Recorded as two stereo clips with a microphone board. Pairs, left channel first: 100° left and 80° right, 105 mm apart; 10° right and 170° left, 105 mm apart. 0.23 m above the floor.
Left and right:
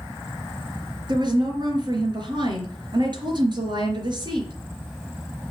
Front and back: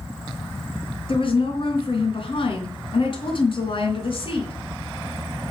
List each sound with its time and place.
1.1 s a woman speaking: 40° right, 4 m